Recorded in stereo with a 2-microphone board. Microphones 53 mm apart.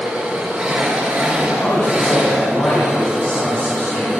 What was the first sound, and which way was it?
An engine running, 15° right (ahead or behind).